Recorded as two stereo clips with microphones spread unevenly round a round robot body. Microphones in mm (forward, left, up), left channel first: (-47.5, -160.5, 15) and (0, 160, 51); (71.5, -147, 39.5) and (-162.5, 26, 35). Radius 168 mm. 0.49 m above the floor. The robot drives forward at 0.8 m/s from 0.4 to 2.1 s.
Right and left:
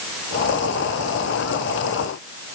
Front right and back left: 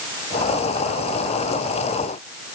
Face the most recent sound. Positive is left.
No sound to turn to.